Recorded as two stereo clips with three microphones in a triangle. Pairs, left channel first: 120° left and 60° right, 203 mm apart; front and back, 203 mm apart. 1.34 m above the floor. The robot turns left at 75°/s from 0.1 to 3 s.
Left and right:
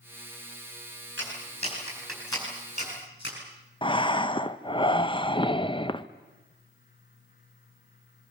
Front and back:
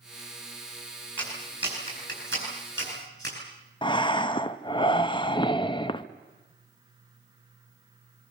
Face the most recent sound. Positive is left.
turn(degrees=60)